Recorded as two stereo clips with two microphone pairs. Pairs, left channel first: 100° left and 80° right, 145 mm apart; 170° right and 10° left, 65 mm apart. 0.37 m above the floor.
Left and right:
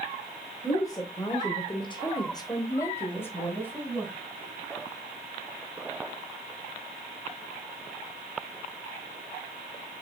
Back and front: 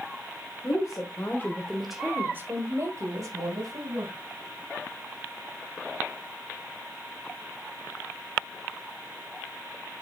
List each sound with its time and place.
0.6 s a woman speaking: 165° left, 2 m; by 4.1 s 20° left, 3 m